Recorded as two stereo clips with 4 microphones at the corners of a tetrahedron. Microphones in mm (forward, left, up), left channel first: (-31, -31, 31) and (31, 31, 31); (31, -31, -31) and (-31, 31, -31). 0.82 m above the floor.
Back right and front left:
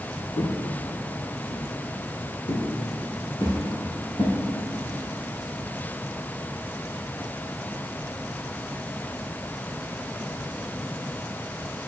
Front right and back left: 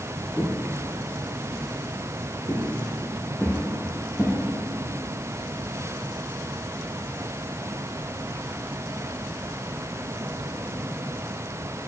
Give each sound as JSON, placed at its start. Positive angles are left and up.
{"t": 0.4, "sound": "footsteps", "azimuth_deg": -135, "distance_m": 2.0}